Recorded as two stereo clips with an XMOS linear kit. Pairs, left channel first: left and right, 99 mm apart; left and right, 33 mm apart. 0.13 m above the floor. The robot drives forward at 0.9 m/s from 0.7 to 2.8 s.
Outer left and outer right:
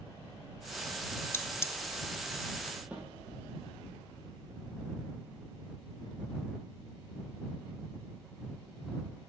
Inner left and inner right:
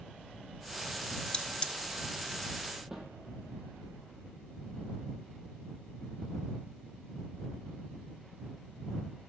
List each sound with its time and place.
1.3 s cutlery clinking: 20° left (ahead or behind), 1.2 m; by 1.7 s 25° left (ahead or behind), 1.0 m
2.9 s a snare drum: 10° right (ahead or behind), 4 m